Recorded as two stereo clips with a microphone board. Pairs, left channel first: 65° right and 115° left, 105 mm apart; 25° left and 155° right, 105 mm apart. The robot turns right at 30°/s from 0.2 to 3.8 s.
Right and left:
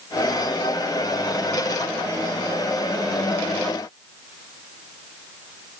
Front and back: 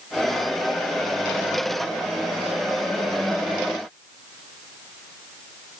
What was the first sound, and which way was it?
Only background noise.